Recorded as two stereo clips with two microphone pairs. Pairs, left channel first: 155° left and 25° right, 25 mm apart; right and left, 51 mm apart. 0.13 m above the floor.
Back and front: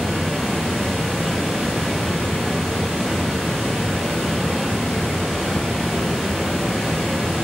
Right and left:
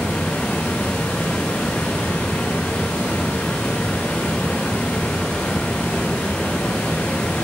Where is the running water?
140° right, 5.5 m.